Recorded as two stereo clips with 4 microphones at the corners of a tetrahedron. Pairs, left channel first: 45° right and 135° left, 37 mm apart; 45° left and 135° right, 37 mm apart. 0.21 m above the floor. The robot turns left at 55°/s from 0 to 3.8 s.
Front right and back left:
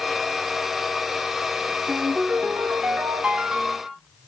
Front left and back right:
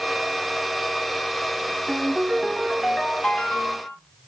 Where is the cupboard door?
No cupboard door in this recording.